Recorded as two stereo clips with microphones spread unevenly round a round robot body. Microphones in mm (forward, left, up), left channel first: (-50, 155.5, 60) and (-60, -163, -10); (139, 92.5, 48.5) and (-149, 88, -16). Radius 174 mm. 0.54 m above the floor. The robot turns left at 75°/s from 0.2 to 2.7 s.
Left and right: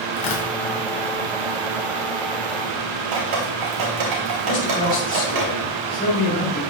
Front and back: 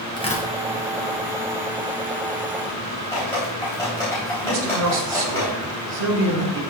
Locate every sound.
0.2 s tearing paper: 80° left, 2.5 m; by 0.5 s 60° left, 2.5 m
3.1 s dripping: 85° right, 3.5 m
4.4 s a man speaking: 160° left, 4.5 m